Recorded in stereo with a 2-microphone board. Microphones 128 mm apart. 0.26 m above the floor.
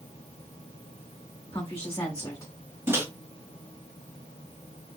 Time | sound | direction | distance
1.5 | a woman speaking | 25° left (ahead or behind) | 1.4 m
2.9 | a microwave | 20° right (ahead or behind) | 1.1 m